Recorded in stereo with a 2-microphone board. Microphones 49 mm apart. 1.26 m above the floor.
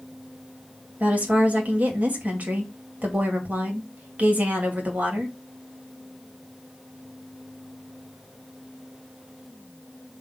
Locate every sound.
1.0 s a woman speaking: 35° right (ahead or behind), 2.5 m